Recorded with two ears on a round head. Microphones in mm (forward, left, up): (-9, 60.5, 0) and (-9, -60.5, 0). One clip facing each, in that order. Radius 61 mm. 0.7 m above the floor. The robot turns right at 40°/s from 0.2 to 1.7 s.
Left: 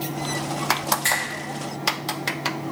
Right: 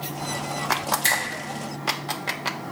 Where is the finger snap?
40° right (ahead or behind), 0.9 m; by 1.2 s 35° right (ahead or behind), 0.9 m.